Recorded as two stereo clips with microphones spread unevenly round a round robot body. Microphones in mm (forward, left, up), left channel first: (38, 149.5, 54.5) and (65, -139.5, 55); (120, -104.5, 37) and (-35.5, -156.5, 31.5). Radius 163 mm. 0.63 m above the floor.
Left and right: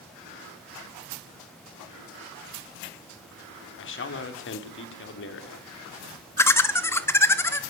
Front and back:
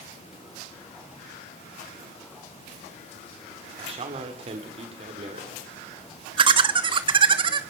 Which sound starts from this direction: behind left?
A man speaking, at 3.8 s.